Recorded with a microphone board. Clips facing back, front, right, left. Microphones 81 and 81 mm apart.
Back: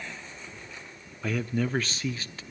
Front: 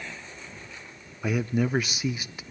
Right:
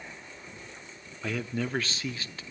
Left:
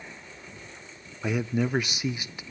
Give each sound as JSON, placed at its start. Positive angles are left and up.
{"t": 1.2, "sound": "a man speaking", "azimuth_deg": 50, "distance_m": 0.6}